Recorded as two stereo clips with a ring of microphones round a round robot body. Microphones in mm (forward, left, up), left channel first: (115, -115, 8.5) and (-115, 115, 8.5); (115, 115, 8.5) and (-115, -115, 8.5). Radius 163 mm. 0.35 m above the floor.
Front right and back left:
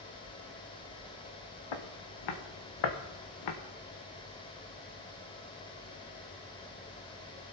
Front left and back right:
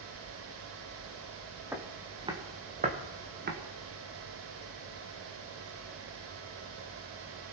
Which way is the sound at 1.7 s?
50° right.